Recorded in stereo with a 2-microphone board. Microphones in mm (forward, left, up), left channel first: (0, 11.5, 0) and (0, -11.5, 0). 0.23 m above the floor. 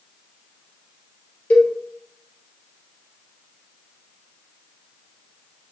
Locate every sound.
1.5 s a cowbell: 75° left (ahead or behind), 1.5 m